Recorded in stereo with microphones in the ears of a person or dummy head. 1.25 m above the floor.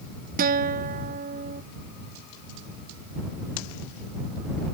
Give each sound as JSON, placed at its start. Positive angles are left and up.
{"t": 0.4, "sound": "a guitar", "side_deg": -55}